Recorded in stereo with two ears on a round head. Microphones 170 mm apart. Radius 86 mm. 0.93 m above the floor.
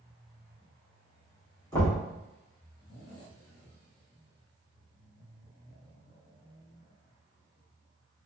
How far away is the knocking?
About 1.4 m.